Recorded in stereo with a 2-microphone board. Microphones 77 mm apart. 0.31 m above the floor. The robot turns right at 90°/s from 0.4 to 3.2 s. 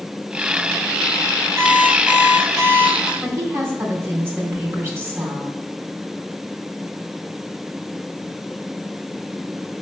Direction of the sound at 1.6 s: 135° right.